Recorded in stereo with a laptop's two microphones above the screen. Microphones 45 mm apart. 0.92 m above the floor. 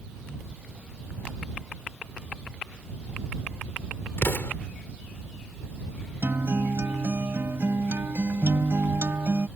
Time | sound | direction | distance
4.2 | an explosion | 60° left (ahead or behind) | ?
6.2 | a guitar | 65° right (ahead or behind) | ?